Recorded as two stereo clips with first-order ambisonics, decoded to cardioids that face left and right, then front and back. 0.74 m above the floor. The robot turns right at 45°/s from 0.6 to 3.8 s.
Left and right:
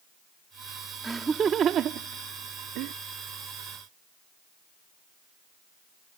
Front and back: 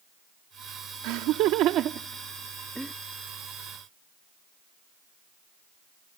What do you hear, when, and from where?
1.0 s laughter: 170° right; by 2.9 s 85° right